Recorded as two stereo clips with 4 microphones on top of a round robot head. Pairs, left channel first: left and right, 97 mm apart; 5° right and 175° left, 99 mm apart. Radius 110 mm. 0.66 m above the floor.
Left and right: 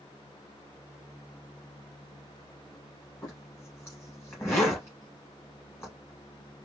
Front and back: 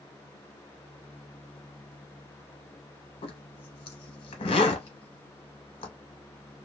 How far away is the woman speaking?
No woman speaking in this recording.